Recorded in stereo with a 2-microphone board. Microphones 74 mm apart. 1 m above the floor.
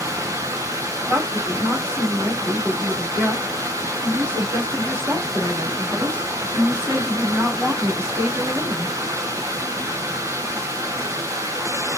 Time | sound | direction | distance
0.0 | running water | 45° right (ahead or behind) | 0.7 m
1.1 | a woman speaking | 40° right (ahead or behind) | 1.9 m